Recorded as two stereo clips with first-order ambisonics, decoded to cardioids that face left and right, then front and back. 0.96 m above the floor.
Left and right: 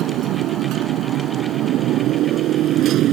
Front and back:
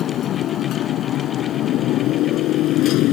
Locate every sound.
0.0 s a motorcycle: 50° right; by 3.1 s 40° right